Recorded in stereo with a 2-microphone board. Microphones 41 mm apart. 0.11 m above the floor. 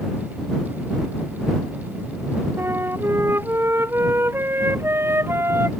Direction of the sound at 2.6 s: 75° right (ahead or behind).